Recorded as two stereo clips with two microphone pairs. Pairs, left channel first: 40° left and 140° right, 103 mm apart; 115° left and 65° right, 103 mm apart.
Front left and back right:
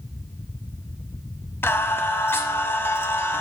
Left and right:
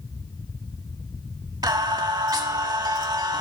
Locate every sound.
1.6 s singing: 20° right, 0.7 m